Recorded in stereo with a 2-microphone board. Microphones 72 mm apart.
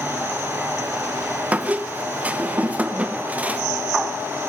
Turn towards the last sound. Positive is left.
turn(degrees=-20)  # may be behind; listen again after turning